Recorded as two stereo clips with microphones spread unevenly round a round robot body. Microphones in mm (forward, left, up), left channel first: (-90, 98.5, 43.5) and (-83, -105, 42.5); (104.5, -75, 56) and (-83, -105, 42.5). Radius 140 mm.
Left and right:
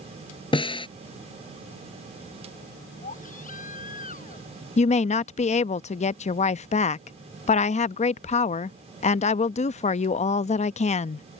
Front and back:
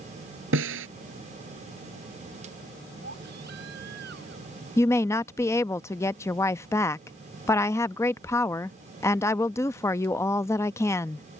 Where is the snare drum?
155° left.